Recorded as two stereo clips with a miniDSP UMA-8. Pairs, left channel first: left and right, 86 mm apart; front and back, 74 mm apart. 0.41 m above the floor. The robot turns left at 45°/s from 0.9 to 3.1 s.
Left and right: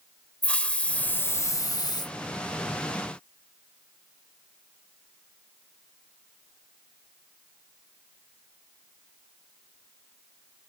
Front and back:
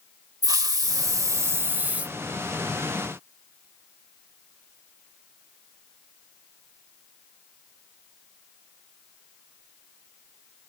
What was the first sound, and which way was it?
A hiss, 165° left.